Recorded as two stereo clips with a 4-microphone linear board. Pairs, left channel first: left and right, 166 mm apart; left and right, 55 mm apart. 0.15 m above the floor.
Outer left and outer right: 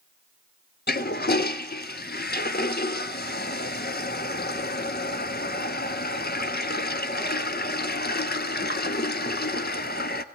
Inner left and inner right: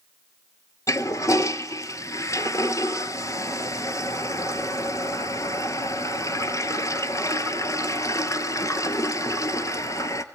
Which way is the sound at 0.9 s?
75° left (ahead or behind).